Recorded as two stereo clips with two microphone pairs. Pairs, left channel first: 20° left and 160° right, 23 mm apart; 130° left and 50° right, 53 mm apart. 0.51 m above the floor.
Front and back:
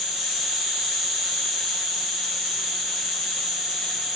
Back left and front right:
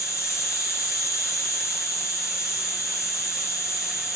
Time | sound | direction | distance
0.0 | an insect | 115° left | 1.5 m